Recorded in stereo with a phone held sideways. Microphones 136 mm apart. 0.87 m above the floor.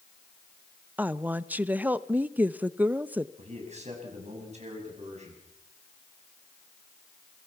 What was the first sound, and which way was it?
A woman speaking, 10° right (ahead or behind).